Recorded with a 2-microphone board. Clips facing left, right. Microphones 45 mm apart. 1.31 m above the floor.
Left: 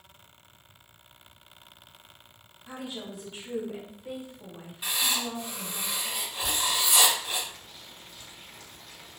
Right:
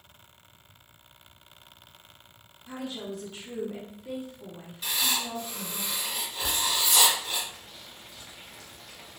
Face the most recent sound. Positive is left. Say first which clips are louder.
# even
turn(degrees=-75)  # may be behind; listen again after turning